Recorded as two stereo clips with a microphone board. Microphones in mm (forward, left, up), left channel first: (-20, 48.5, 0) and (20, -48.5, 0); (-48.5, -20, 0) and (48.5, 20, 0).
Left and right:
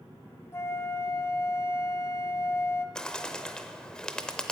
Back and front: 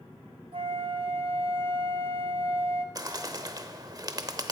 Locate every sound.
0.5 s a flute: 50° left, 0.6 m
3.0 s a bird: 35° left, 0.6 m